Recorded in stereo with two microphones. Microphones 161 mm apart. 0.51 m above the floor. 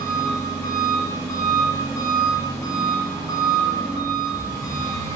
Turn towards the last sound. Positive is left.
turn(degrees=20)  # may be behind; listen again after turning